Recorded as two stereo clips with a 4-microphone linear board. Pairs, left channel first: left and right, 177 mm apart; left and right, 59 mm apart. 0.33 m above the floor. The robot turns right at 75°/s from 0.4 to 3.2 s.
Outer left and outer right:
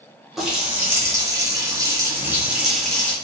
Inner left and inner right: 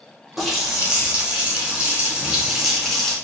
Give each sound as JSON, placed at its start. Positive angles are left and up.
{"t": 0.4, "sound": "a running tap", "side_deg": 0, "distance_m": 0.7}